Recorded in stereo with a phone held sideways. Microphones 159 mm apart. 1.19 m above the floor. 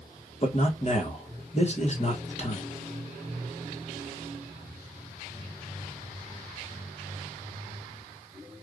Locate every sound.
0.4 s a man speaking: 45° left (ahead or behind), 1.1 m